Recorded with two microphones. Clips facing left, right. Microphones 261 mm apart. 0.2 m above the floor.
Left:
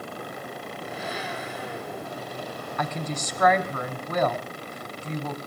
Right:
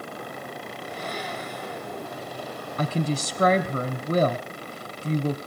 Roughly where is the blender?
Centre.